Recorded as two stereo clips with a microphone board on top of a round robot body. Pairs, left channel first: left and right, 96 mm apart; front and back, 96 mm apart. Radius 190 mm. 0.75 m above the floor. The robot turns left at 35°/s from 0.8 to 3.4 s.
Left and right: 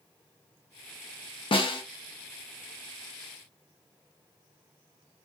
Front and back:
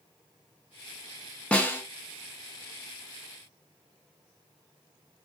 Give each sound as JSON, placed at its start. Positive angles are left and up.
{"t": 1.5, "sound": "a snare drum", "azimuth_deg": 75, "distance_m": 1.1}